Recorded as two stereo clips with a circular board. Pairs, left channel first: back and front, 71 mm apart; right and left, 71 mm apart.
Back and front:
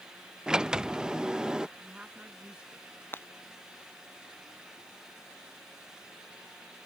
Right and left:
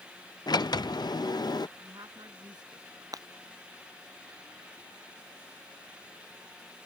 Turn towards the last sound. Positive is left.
turn(degrees=120)